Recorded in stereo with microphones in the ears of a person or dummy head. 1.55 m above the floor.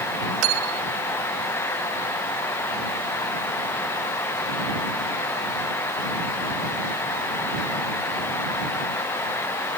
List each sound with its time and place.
0.4 s cutlery clinking: 75° right (ahead or behind)